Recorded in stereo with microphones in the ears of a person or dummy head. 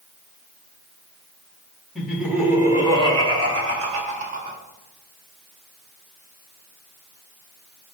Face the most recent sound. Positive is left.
turn(degrees=-50)  # may be behind; listen again after turning